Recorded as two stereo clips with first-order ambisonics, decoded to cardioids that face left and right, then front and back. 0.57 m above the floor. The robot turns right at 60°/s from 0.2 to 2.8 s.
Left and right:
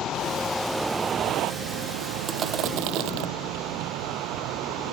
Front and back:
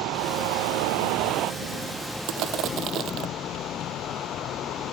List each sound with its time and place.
0.0 s a vehicle: 150° left; by 4.9 s 55° right
2.3 s crushing: 160° right; by 3.3 s 125° right